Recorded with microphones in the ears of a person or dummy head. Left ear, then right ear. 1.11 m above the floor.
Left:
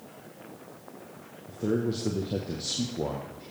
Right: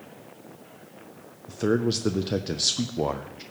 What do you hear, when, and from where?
1.5 s a man speaking: 60° right (ahead or behind), 0.5 m